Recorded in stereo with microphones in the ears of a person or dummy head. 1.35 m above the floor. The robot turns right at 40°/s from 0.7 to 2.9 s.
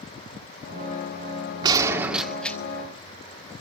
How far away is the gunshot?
About 2 m.